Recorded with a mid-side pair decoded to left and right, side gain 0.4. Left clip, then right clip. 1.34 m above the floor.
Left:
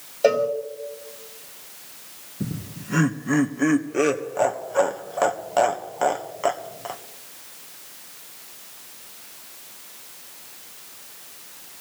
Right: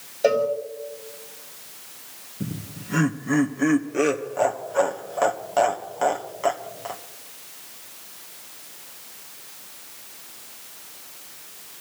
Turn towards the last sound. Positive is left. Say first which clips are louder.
# left 1 dB
turn(degrees=20)